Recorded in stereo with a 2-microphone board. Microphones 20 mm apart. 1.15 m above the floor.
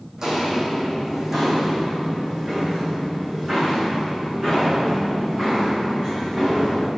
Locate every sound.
0.2 s footsteps: 30° right (ahead or behind), 3.5 m; by 6.9 s 25° right (ahead or behind), 8.5 m